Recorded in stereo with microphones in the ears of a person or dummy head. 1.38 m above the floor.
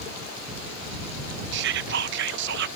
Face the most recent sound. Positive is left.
turn(degrees=-65)  # may be behind; listen again after turning